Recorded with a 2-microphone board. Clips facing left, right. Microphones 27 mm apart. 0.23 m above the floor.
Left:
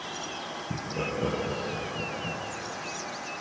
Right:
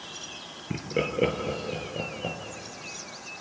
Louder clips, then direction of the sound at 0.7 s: Right 5 dB; 55° right (ahead or behind).